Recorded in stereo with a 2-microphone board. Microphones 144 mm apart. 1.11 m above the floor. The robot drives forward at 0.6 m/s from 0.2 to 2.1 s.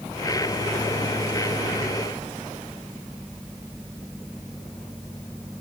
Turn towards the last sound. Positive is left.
No sound to turn to.